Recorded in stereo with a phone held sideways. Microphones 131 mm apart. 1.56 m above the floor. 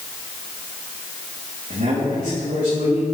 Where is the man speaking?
80° right, 2.5 m.